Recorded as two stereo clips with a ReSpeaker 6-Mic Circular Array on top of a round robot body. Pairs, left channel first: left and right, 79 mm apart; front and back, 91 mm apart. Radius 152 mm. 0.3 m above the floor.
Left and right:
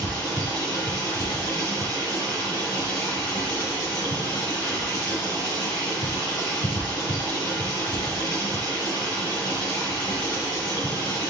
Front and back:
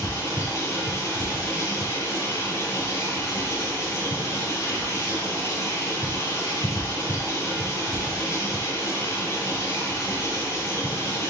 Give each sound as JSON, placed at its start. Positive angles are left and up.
{"t": 0.0, "sound": "running water", "azimuth_deg": 55, "distance_m": 5.0}